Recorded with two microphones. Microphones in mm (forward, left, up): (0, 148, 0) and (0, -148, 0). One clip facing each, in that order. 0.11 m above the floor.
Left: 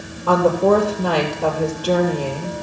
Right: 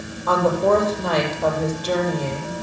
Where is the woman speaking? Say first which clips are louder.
Left 3 dB; 35° left (ahead or behind), 2.5 m.